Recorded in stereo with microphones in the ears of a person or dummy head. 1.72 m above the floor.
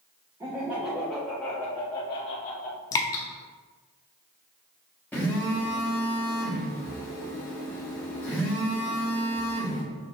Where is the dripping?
15° left (ahead or behind), 0.6 m.